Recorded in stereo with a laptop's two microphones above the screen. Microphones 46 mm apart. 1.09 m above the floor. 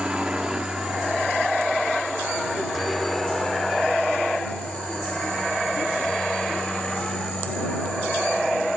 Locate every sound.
0.0 s a helicopter: 20° right (ahead or behind); by 8.8 s 20° left (ahead or behind)